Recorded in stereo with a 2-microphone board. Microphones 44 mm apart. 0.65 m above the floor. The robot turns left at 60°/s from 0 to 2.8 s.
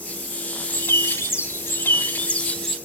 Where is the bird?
130° left, 1.8 m; by 2.8 s 5° left, 1.8 m.